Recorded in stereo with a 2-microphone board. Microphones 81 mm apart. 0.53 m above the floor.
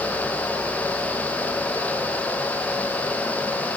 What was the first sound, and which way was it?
Only background noise.